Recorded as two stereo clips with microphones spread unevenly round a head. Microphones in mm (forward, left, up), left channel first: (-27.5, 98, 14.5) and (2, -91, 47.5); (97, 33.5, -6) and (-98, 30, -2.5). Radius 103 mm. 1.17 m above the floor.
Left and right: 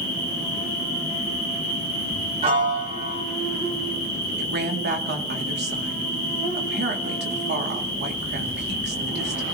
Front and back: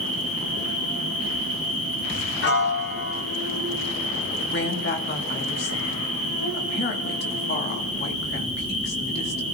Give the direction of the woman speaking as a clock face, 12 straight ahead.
1 o'clock.